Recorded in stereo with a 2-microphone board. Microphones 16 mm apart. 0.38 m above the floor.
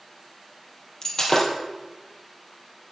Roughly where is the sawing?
No sawing in this recording.